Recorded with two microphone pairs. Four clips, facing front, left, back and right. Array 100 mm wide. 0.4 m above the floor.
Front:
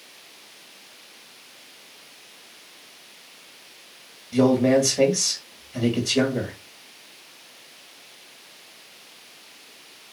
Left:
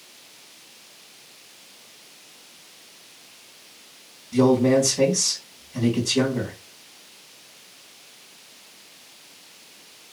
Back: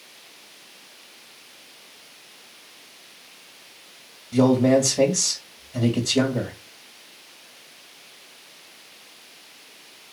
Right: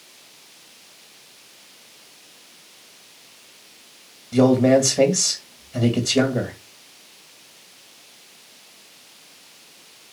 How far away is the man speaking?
About 1.7 m.